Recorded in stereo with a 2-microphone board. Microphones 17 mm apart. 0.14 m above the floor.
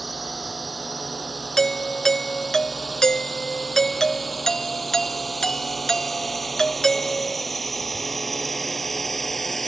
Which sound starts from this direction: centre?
A drone, at 0.0 s.